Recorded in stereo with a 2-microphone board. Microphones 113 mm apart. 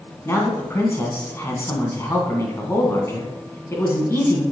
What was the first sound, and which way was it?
A man speaking, 25° left (ahead or behind).